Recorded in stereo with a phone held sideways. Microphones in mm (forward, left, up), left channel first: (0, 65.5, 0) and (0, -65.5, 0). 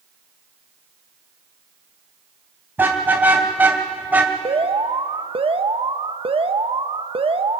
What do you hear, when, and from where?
2.8 s a car horn: 15° right (ahead or behind), 3 m
4.5 s an alarm: 50° right (ahead or behind), 0.9 m